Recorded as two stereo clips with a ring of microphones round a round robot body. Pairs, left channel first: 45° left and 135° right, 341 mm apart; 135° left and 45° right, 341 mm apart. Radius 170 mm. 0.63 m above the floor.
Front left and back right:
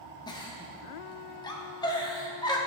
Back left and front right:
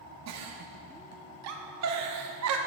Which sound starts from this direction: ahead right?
A giggle, at 0.3 s.